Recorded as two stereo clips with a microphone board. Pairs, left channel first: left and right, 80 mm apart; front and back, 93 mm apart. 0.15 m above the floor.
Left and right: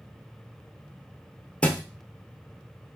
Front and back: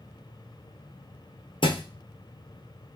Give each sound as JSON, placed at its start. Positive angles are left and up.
{"t": 1.6, "sound": "a thud", "azimuth_deg": 15, "distance_m": 1.1}